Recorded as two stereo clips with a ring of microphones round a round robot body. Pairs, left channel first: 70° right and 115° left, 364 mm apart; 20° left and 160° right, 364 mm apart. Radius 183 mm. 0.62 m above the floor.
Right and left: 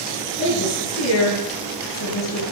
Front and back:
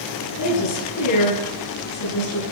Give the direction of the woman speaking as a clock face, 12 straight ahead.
12 o'clock.